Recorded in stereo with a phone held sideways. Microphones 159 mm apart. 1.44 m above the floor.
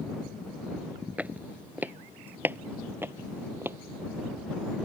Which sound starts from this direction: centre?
Footsteps, at 1.2 s.